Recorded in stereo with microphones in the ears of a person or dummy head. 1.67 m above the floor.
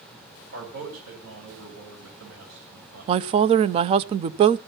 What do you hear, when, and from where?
0.5 s a man speaking: 80° right, 7.5 m
3.1 s a woman speaking: 35° right (ahead or behind), 0.5 m